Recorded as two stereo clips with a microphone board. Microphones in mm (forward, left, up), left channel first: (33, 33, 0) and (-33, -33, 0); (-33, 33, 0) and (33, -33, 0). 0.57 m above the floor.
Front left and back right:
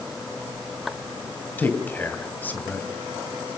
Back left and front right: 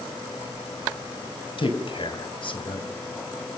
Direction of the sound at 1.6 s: 115° left.